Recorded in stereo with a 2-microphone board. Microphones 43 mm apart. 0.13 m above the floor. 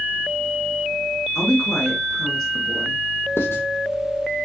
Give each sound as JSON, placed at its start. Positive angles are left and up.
{"t": 1.4, "sound": "a woman speaking", "side_deg": 10, "distance_m": 1.4}
{"t": 3.4, "sound": "writing", "side_deg": 75, "distance_m": 1.2}